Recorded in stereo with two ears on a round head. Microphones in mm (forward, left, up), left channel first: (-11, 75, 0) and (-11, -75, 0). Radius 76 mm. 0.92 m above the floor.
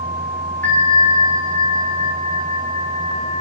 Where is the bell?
10° left (ahead or behind), 0.8 m.